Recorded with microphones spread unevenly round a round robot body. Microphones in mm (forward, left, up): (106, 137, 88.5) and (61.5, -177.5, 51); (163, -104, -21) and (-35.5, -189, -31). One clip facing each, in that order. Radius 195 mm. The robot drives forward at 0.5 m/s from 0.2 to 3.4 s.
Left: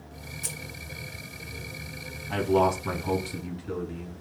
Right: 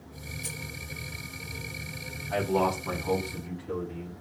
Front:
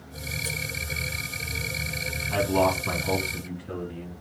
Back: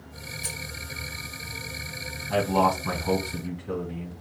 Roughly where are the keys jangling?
Behind left.